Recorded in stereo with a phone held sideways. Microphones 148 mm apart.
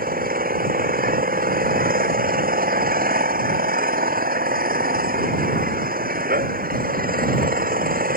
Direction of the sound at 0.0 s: 75° right (ahead or behind).